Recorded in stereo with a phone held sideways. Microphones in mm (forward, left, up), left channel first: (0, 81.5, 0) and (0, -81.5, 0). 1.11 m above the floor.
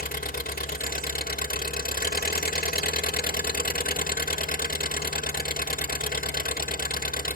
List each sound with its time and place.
0.0 s an engine running: 65° left (ahead or behind), 0.7 m